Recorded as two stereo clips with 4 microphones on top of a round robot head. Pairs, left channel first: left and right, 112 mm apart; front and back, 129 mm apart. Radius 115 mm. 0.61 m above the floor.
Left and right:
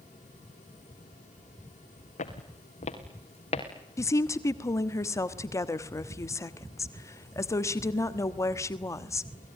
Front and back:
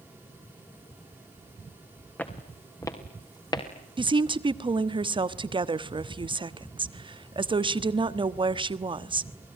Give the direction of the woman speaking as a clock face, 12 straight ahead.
7 o'clock.